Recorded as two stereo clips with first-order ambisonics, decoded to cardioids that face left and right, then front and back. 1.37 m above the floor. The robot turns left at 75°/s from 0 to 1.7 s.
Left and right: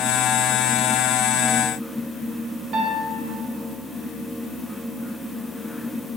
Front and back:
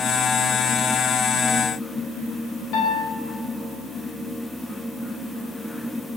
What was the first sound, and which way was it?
A piano, 30° right.